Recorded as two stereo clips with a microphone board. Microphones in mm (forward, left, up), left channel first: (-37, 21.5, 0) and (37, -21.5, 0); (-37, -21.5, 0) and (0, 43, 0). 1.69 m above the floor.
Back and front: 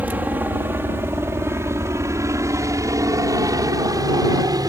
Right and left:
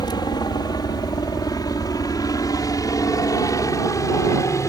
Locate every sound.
0.0 s a helicopter: 100° right; by 4.7 s 75° right